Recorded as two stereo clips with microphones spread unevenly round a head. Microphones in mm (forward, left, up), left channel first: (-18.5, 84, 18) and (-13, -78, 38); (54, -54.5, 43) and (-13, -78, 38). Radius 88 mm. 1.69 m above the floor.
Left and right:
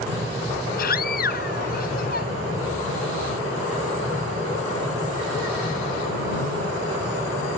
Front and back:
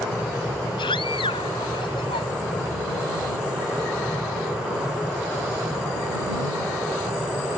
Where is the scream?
50° left.